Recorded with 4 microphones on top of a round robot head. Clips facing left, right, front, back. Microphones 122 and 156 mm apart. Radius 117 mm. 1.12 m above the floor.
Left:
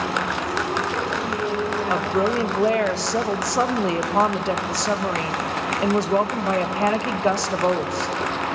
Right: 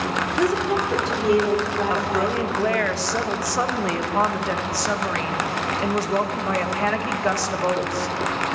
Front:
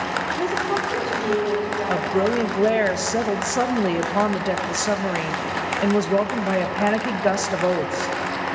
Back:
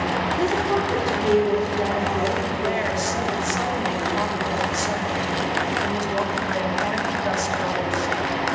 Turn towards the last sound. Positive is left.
turn(degrees=25)